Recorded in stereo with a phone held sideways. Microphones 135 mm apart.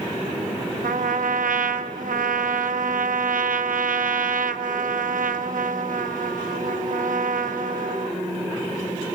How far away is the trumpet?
About 0.6 m.